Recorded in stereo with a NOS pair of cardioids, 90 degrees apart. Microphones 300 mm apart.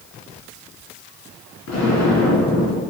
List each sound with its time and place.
1.7 s an explosion: 70° left, 3 m